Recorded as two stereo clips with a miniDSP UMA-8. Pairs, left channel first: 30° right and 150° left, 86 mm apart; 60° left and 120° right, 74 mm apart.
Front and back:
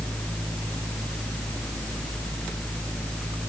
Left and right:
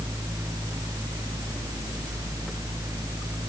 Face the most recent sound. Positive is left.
No sound to turn to.